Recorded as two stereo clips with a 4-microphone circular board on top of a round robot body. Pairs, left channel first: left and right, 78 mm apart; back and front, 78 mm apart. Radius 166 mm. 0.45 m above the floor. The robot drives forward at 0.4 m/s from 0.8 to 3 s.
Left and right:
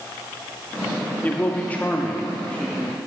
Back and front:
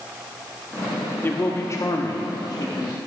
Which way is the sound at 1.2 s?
145° left.